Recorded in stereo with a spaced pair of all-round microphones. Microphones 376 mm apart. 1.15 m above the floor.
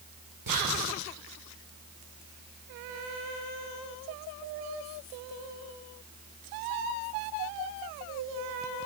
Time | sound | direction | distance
0.5 | whispering | 60° right (ahead or behind) | 1.2 m